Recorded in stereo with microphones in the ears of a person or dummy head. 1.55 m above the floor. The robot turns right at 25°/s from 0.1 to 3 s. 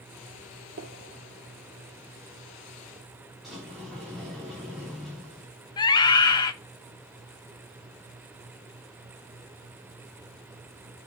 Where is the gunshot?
70° right (ahead or behind), 1.7 m; by 3.1 s 15° right (ahead or behind), 1.7 m.